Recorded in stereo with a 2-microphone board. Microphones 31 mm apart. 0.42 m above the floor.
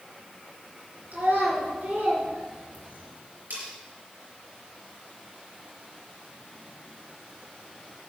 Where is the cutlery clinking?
65° right (ahead or behind), 4.5 m.